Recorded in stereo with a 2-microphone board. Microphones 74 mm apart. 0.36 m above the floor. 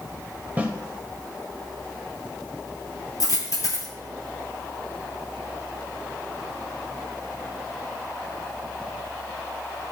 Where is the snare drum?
20° right (ahead or behind), 1.2 m.